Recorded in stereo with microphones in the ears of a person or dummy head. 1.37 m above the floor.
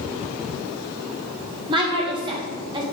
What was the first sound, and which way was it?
A woman speaking, 30° right (ahead or behind).